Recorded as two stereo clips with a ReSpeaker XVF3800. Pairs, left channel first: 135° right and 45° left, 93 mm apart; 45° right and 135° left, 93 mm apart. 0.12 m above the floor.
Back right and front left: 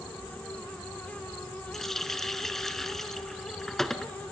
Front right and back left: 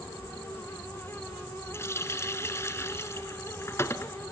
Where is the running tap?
55° right, 0.9 m.